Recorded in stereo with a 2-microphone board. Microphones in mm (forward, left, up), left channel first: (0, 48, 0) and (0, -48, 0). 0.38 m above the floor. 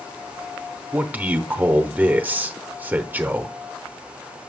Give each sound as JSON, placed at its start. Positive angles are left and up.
{"t": 0.9, "sound": "a man speaking", "side_deg": -20, "distance_m": 0.9}